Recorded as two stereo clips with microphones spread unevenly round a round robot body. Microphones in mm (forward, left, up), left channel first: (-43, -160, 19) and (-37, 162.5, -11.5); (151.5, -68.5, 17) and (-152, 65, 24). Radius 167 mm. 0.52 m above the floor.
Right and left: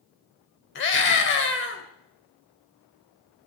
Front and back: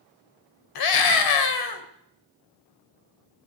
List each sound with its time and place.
0.8 s a scream: 30° right, 2.5 m